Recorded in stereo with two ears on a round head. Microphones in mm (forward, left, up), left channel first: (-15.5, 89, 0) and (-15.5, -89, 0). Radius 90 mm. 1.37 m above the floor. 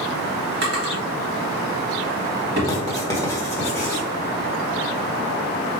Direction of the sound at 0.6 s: 55° right (ahead or behind).